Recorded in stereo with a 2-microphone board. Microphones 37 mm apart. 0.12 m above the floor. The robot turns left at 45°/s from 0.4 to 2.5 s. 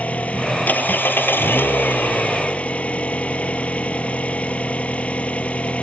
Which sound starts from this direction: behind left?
An engine running, at 0.0 s.